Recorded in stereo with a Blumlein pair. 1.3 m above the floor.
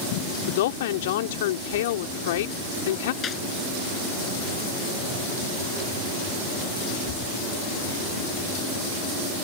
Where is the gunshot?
25° left.